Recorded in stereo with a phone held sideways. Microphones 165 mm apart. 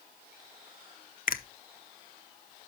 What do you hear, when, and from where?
1.3 s a finger snap: 60° left (ahead or behind), 0.7 m